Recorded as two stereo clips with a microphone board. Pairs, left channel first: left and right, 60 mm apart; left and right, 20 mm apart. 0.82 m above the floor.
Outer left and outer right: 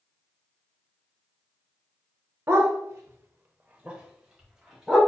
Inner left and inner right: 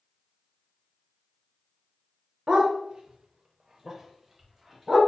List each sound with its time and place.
2.5 s a dog barking: 45° right (ahead or behind), 0.8 m; by 5.0 s 5° right (ahead or behind), 1.4 m